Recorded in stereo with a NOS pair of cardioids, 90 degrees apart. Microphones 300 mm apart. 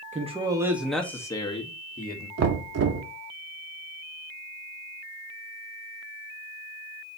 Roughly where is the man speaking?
Ahead right.